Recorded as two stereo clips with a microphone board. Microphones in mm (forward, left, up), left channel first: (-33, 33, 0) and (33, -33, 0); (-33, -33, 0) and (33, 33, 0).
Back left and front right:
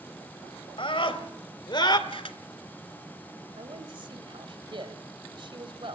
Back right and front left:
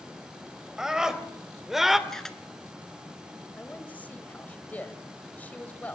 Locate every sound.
0.8 s a scream: 130° left, 3 m
2.1 s a camera shutter: 140° left, 1.3 m
3.6 s a man speaking: 65° right, 2.5 m